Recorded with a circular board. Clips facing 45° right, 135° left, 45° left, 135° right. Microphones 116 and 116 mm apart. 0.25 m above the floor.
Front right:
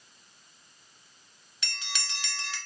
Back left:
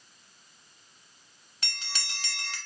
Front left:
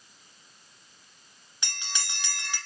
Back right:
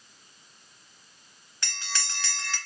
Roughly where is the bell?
Left.